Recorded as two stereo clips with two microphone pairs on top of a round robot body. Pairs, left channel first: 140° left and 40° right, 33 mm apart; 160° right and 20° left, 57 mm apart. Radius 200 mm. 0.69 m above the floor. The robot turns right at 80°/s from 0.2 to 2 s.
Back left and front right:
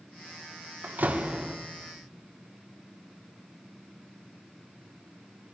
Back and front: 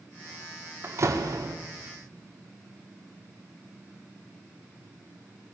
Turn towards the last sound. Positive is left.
turn(degrees=70)